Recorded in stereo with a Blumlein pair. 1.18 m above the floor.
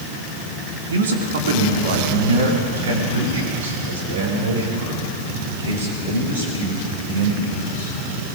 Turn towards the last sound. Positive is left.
turn(degrees=-70)